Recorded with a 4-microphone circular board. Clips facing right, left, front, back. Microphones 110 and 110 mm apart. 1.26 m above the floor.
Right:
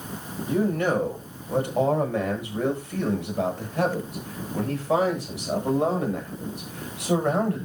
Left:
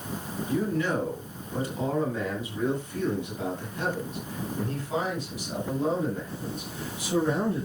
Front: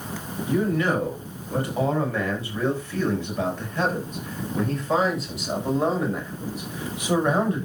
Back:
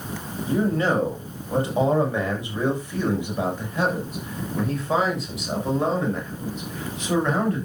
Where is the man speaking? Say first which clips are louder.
Right 4 dB, back 1 dB; 120° right, 7 m; by 7.7 s 75° right, 7 m.